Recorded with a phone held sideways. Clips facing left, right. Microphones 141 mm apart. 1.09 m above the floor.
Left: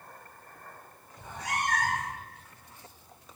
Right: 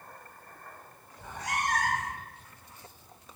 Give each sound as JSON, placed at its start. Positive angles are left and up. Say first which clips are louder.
{"t": 1.2, "sound": "a cat meowing", "louder": "even", "side_deg": 25, "distance_m": 1.6}